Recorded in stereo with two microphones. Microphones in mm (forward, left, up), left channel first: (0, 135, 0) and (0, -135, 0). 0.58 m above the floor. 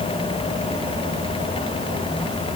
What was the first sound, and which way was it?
Only background noise.